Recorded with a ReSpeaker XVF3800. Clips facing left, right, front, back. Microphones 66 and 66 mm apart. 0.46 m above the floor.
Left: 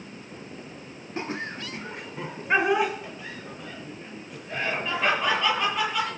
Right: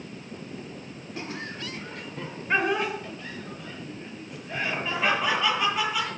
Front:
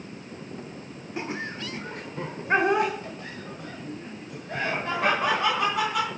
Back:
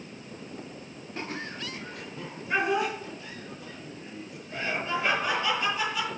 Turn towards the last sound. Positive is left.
turn(degrees=-5)